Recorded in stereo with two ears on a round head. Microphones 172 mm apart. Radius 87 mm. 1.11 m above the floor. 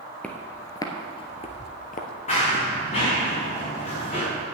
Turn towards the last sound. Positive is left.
turn(degrees=35)  # may be behind; listen again after turning